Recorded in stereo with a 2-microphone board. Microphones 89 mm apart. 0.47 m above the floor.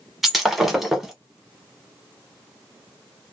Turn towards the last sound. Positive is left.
turn(degrees=0)  # may be behind; listen again after turning